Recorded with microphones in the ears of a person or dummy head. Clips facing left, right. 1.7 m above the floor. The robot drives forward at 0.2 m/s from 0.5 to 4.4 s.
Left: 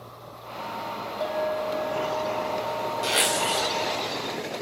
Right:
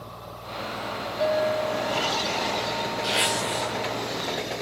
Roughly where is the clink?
Right.